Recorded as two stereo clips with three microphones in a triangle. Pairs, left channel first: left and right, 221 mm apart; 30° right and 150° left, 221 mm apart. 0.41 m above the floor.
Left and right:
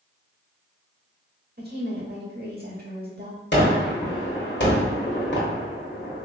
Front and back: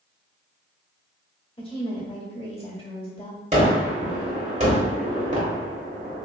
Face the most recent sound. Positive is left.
turn(degrees=100)